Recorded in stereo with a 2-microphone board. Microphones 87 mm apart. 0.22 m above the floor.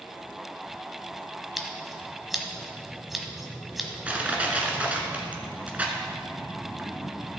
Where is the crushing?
15° right (ahead or behind), 1.5 m.